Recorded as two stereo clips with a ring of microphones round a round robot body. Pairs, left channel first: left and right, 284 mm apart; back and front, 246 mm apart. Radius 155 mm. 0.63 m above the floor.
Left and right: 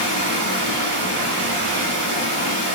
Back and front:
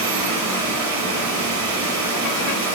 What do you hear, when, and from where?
0.0 s running water: 35° right, 1.3 m